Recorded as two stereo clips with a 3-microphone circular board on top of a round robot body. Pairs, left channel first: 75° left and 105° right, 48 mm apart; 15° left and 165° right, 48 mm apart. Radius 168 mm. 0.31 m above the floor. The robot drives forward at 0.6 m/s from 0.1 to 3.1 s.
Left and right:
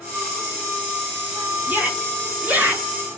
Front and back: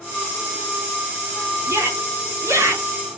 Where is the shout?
160° right, 6 m; by 2.9 s 165° right, 6.5 m.